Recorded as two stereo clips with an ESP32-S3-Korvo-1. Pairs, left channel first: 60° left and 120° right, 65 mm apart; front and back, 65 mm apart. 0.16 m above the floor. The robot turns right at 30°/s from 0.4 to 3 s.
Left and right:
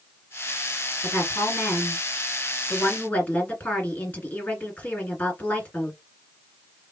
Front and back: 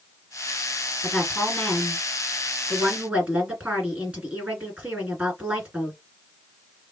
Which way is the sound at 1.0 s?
55° left.